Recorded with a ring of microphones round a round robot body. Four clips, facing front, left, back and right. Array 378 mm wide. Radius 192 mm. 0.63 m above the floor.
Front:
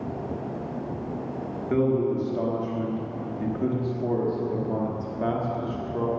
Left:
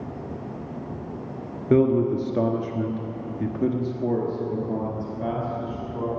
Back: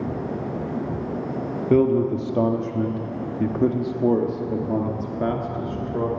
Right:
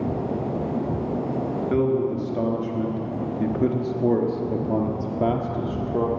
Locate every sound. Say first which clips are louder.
1.7 s a man speaking: left 4 dB, back 5 dB; 140° left, 1.6 m; by 6.1 s 110° right, 2 m